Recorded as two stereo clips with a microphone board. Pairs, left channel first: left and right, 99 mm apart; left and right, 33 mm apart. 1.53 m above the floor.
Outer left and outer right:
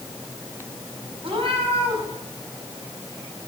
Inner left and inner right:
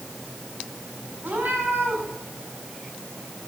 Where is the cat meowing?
65° right (ahead or behind), 5.5 m.